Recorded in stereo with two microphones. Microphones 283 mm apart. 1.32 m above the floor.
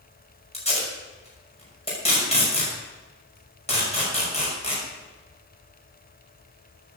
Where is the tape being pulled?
20° left (ahead or behind), 6 m.